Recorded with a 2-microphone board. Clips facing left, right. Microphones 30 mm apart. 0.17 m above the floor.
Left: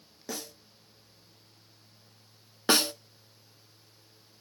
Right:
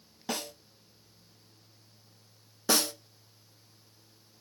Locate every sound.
0.3 s a snare drum: 75° right (ahead or behind), 0.9 m
2.7 s a snare drum: 40° left (ahead or behind), 0.6 m